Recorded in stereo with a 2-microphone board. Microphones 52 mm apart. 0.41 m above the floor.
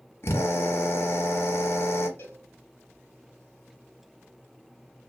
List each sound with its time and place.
0.2 s a drill: 50° left (ahead or behind), 1.3 m
2.2 s a cowbell: 45° left (ahead or behind), 1.6 m